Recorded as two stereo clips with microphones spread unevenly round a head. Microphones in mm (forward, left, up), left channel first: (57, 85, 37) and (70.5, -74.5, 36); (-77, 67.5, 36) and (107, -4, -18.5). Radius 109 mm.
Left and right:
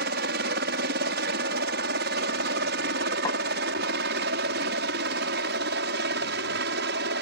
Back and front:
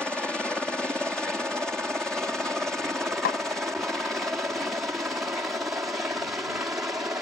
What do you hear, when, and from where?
0.0 s a helicopter: 110° right; by 7.2 s 105° right
3.2 s a snare drum: 165° left